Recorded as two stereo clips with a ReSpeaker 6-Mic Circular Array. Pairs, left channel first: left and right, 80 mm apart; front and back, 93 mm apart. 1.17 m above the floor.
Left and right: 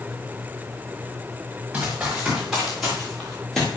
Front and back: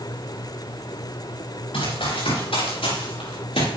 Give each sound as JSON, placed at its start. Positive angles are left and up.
{"t": 1.7, "sound": "running footsteps", "azimuth_deg": -15, "distance_m": 6.5}